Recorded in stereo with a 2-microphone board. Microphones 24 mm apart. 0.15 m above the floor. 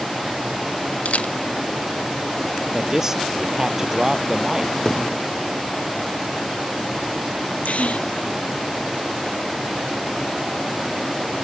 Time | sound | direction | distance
1.1 | a camera shutter | 70° left (ahead or behind) | ?
2.7 | a man speaking | 20° right (ahead or behind) | ?
4.8 | a thud | 25° left (ahead or behind) | ?
7.7 | a gasp | 70° left (ahead or behind) | ?